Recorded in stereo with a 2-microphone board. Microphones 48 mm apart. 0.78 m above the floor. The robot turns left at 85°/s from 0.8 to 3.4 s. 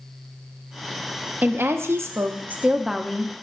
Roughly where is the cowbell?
I don't hear a cowbell.